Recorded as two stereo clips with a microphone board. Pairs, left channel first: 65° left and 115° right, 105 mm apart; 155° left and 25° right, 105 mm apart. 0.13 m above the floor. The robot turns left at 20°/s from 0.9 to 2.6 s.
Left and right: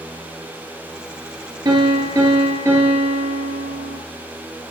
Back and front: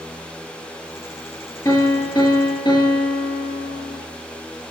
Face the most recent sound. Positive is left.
turn(degrees=-175)